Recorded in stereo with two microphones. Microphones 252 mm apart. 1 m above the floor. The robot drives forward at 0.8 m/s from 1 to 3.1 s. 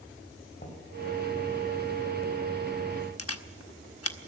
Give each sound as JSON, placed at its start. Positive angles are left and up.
{"t": 0.6, "sound": "knocking", "side_deg": 40, "distance_m": 4.5}
{"t": 3.2, "sound": "a camera shutter", "side_deg": 65, "distance_m": 1.1}